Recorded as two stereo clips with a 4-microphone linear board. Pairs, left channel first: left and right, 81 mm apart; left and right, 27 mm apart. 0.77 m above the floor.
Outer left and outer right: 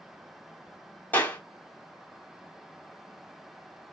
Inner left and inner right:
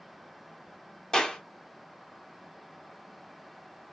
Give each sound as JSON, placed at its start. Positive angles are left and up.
{"t": 1.1, "sound": "a clap", "side_deg": 20, "distance_m": 1.5}